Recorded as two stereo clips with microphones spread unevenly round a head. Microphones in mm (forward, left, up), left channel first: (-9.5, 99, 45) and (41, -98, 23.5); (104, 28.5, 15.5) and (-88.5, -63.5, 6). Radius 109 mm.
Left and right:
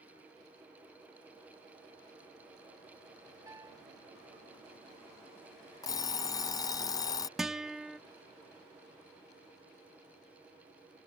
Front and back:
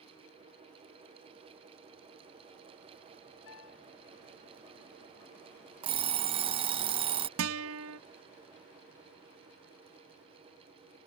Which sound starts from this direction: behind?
A guitar, at 7.4 s.